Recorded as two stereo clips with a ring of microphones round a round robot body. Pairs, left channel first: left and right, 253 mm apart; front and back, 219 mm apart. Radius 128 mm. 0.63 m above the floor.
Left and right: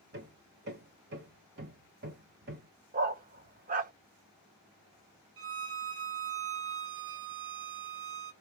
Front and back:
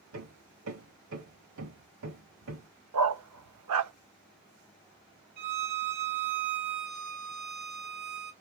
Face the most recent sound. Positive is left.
turn(degrees=-130)